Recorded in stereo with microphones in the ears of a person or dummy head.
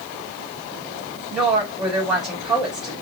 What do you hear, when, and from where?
1.3 s a woman speaking: 5° right (ahead or behind), 2.5 m